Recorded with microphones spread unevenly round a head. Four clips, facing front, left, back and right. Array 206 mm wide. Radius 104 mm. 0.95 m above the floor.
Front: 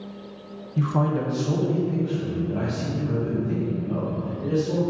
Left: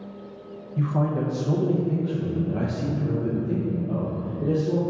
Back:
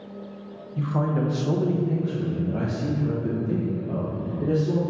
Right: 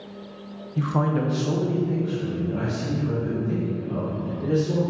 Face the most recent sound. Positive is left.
turn(degrees=155)